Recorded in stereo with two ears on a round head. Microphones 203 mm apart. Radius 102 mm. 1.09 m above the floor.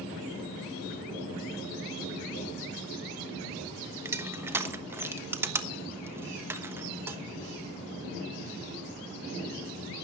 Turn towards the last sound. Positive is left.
turn(degrees=-10)  # may be behind; listen again after turning